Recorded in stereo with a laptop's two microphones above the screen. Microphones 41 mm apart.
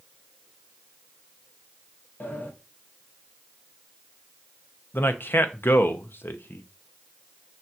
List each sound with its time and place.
2.2 s a sliding door: 55° left (ahead or behind), 1.1 m
4.9 s a man speaking: 60° left (ahead or behind), 0.7 m